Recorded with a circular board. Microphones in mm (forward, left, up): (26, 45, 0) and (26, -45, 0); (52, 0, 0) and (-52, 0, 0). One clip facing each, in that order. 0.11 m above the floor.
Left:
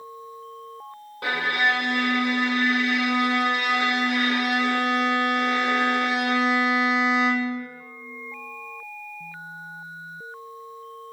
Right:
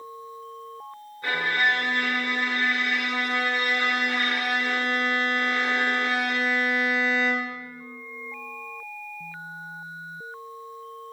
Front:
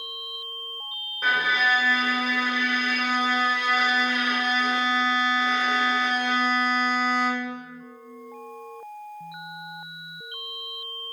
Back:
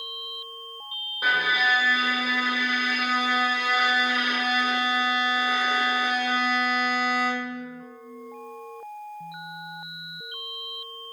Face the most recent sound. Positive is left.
turn(degrees=100)